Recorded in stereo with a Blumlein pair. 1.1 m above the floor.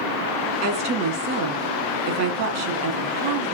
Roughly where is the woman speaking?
Ahead right.